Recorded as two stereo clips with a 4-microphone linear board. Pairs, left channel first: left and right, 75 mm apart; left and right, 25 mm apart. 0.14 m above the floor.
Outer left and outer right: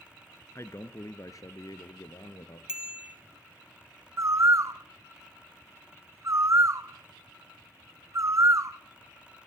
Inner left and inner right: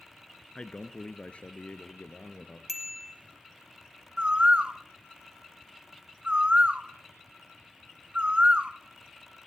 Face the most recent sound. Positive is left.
turn(degrees=-45)  # may be behind; listen again after turning